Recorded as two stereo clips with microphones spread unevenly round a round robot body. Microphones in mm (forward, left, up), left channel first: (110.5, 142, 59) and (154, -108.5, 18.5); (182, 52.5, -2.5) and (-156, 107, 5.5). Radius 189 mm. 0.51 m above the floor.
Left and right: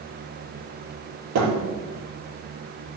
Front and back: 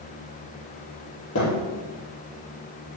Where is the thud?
70° right, 4.5 m.